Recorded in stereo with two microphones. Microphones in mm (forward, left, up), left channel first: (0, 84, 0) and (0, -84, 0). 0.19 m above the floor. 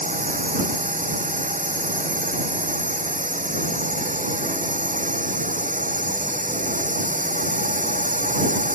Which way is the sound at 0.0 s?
50° right (ahead or behind).